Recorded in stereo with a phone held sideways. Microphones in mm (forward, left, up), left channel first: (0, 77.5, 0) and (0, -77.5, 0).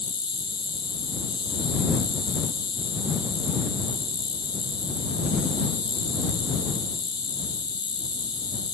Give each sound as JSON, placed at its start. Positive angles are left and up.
{"t": 0.0, "sound": "an insect", "side_deg": 30}